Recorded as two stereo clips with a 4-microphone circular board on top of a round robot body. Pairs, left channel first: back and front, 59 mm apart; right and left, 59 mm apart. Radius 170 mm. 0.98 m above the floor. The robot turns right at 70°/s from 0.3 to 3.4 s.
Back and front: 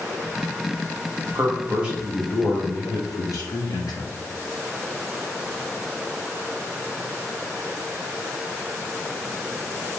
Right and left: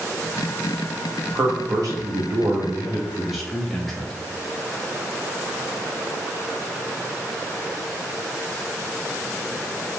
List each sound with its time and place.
1.4 s a man speaking: 40° left, 1.1 m; by 4.1 s 175° right, 1.1 m